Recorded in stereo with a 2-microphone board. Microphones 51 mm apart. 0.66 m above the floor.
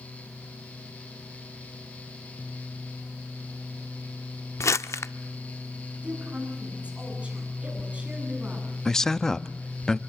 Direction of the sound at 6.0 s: 25° right (ahead or behind).